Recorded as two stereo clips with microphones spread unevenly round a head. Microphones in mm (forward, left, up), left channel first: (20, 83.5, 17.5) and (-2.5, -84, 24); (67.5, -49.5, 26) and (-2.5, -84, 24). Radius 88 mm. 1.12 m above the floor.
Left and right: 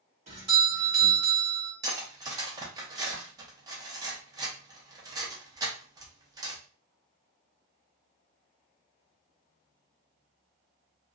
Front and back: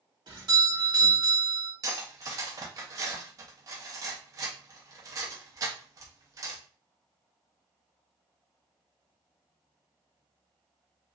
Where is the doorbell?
145° right, 1.6 m.